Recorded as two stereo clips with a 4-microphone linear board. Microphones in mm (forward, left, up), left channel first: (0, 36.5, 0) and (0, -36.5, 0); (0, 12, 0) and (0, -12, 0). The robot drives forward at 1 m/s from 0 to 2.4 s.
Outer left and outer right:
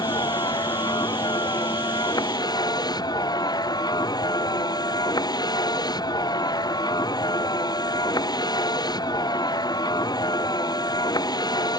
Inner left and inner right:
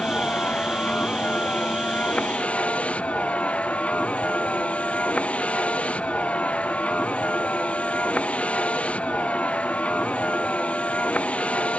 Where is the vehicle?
70° left (ahead or behind); by 11.8 s 65° left (ahead or behind).